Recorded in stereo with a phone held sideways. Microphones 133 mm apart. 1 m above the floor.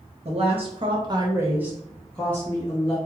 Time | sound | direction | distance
0.2 | a woman speaking | 50° right (ahead or behind) | 1.0 m